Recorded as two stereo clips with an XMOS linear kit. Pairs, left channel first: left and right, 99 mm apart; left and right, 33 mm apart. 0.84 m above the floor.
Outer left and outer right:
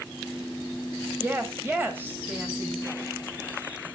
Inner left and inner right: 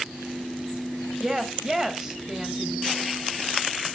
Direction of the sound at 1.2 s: 20° right (ahead or behind).